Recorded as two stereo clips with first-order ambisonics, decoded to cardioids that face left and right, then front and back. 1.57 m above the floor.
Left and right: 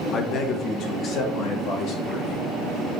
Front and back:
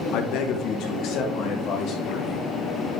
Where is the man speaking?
25° left, 1.1 m; by 2.5 s 40° left, 3 m.